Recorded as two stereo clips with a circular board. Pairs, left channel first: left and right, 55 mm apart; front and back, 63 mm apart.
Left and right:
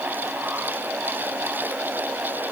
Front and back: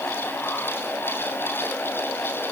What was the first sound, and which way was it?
Only background noise.